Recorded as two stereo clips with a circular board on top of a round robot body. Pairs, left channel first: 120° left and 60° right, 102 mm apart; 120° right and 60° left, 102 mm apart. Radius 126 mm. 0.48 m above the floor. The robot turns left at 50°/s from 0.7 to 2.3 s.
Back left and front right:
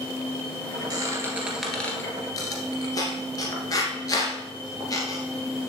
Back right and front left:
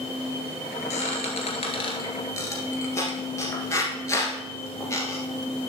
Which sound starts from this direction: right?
A squeak, at 0.9 s.